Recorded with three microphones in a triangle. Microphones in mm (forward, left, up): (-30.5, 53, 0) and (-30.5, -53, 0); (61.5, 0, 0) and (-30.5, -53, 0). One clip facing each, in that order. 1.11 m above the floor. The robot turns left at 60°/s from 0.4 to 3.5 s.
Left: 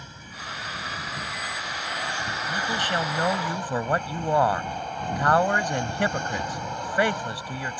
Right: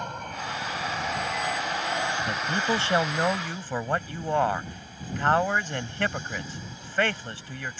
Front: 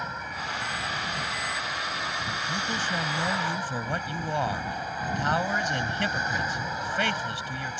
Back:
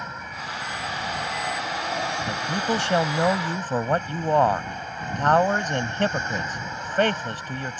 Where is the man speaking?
120° right; by 7.8 s 165° left.